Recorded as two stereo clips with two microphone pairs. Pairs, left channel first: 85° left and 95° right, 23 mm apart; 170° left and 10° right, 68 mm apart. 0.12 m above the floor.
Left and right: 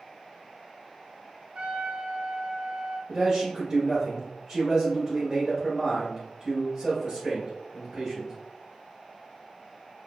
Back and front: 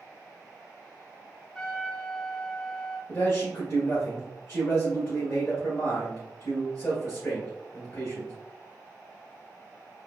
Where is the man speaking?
155° right, 2.0 m.